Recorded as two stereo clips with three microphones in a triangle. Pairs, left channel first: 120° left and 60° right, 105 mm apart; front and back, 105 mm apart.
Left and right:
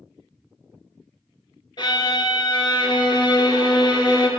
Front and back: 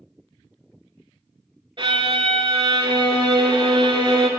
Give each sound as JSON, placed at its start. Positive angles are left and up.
{"t": 1.8, "sound": "a violin", "azimuth_deg": 155, "distance_m": 0.9}